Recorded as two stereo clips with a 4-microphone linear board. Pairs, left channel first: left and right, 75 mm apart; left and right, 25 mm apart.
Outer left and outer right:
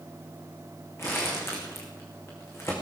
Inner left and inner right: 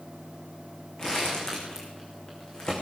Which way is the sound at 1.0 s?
35° left (ahead or behind).